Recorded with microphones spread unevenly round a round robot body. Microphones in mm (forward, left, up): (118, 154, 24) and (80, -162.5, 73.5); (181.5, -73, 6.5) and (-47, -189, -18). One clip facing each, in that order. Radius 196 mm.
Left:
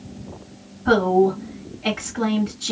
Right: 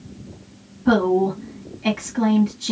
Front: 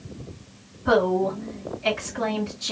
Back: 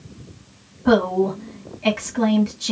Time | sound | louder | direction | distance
0.8 | a woman speaking | even, back 4 dB | 175° right | 1.7 m